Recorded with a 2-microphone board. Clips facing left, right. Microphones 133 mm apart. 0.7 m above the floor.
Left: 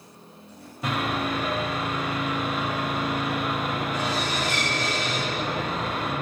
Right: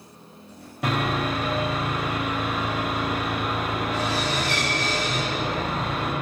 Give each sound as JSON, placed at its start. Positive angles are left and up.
{"t": 0.8, "sound": "sawing", "side_deg": -70, "distance_m": 1.2}